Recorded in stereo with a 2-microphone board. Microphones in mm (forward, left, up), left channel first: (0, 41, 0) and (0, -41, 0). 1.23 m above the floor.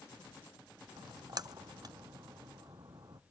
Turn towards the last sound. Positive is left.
turn(degrees=-45)  # may be behind; listen again after turning